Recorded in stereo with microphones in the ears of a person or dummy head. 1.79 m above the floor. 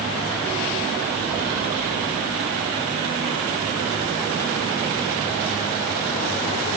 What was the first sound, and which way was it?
Only background noise.